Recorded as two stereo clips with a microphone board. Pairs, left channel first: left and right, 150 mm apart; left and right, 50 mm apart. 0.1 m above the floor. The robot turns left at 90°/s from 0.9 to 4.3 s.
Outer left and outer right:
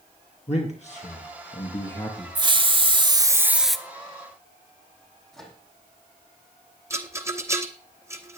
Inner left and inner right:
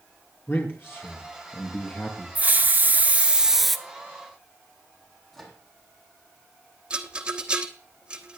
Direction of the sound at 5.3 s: 5° left (ahead or behind).